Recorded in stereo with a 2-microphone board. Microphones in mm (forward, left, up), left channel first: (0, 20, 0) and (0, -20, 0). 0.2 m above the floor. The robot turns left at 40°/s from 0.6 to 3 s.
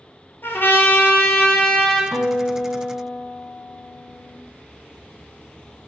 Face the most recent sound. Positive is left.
turn(degrees=160)